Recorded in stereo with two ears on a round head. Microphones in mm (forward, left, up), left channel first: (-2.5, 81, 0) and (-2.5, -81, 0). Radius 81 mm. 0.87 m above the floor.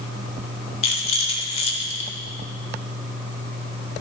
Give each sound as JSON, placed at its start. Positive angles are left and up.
{"t": 0.8, "sound": "a rattle", "side_deg": 35, "distance_m": 1.1}